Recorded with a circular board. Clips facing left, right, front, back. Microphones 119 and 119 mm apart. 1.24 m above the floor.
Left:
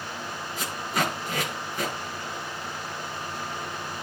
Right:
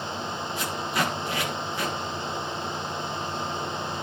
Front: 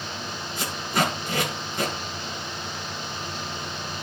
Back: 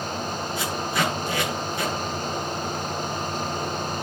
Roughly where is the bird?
I don't hear a bird.